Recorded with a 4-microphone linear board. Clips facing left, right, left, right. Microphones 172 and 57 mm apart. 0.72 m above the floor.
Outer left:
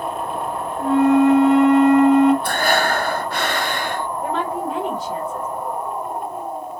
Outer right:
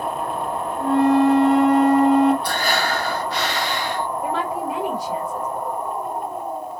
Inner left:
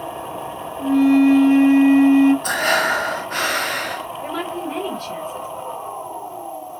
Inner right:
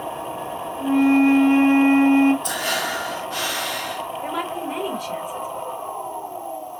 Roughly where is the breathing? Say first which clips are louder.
Outer left 3 dB, inner left 6 dB; left.